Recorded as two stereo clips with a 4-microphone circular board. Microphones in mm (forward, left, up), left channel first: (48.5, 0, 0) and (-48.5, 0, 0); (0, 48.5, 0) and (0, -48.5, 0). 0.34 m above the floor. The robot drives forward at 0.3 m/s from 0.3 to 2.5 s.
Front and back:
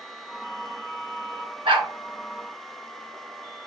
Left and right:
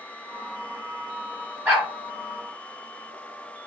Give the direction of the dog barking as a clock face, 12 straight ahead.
5 o'clock.